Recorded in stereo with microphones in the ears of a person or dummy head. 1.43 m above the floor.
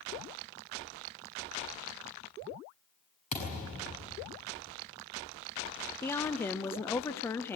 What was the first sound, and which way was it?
A thud, 40° left (ahead or behind).